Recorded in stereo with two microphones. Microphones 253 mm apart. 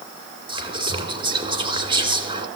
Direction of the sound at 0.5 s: 20° right (ahead or behind).